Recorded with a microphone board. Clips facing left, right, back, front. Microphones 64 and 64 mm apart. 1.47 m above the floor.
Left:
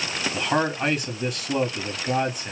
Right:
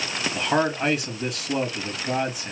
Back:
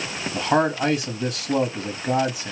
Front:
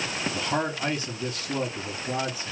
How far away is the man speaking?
About 3 m.